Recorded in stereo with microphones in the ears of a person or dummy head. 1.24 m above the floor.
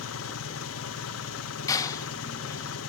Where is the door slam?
25° left (ahead or behind), 0.8 m.